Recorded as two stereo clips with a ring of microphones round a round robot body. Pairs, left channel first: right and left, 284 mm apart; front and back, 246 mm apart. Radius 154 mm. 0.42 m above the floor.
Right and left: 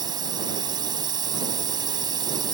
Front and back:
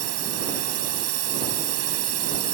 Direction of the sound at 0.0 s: 165° left.